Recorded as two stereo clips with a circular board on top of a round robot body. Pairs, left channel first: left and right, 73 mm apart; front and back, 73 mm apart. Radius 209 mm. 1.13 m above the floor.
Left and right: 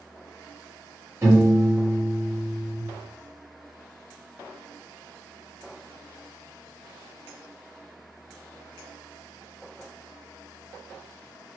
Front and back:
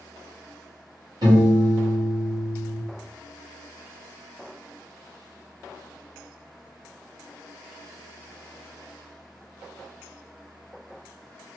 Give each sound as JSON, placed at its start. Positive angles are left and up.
{"t": 1.2, "sound": "a piano", "azimuth_deg": -145, "distance_m": 1.6}